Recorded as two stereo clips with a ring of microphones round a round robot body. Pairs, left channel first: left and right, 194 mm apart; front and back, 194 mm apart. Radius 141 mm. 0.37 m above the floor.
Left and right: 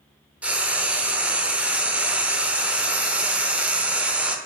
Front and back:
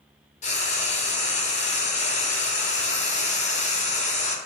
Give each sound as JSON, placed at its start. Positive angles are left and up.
{"t": 0.4, "sound": "frying", "azimuth_deg": -10, "distance_m": 0.7}